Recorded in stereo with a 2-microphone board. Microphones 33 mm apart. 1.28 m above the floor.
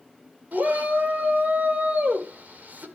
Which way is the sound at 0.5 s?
65° right (ahead or behind).